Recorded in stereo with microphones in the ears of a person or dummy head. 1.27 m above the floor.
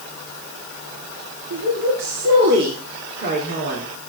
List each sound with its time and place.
1.5 s a woman speaking: 65° right (ahead or behind), 3.5 m; by 3.9 s 45° right (ahead or behind), 4 m